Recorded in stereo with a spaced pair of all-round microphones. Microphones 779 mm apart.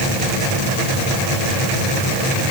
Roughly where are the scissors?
No scissors in this recording.